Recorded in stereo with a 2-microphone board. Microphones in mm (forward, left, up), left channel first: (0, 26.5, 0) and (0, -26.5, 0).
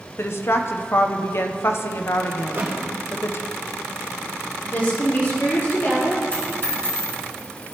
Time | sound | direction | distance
0.2 | a woman speaking | 50° left (ahead or behind) | 0.5 m
2.4 | a thud | 50° right (ahead or behind) | 2 m
4.7 | a woman speaking | 45° left (ahead or behind) | 3 m
6.3 | a dropped coin | 40° left (ahead or behind) | 3 m